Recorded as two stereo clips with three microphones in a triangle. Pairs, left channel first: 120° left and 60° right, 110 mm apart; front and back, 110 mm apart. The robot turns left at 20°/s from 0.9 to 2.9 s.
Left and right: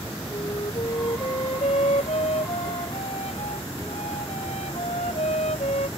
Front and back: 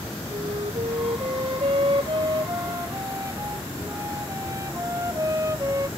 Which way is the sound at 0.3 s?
160° left.